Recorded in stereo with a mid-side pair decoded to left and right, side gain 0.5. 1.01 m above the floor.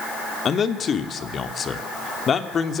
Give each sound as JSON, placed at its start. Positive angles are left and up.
{"t": 0.5, "sound": "a man speaking", "azimuth_deg": 45, "distance_m": 3.0}